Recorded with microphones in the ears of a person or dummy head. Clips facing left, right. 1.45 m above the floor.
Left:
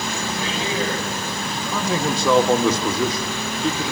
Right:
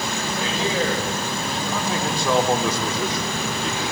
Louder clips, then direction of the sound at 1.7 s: Left 5 dB; 80° left.